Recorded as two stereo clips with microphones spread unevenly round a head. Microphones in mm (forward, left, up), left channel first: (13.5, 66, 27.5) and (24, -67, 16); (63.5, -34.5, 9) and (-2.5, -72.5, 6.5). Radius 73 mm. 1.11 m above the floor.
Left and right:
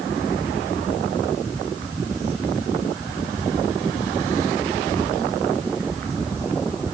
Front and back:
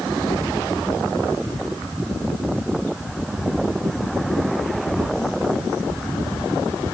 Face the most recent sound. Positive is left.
No sound to turn to.